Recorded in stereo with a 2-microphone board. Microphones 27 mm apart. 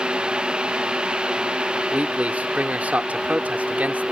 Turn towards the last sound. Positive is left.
turn(degrees=-65)  # may be behind; listen again after turning